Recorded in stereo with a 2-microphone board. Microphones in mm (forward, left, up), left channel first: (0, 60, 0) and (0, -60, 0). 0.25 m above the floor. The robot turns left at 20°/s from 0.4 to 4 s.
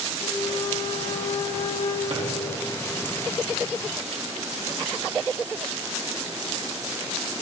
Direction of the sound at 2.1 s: 75° right (ahead or behind).